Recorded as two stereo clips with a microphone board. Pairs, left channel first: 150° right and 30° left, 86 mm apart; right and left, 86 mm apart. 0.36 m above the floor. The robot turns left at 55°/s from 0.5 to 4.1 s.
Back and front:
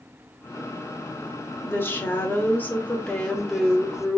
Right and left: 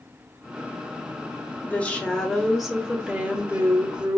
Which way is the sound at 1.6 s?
130° right.